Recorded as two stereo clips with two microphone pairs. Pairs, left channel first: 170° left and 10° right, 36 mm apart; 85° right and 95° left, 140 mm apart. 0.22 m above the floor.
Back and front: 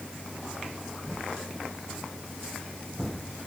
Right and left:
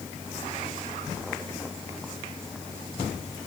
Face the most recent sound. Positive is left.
No sound to turn to.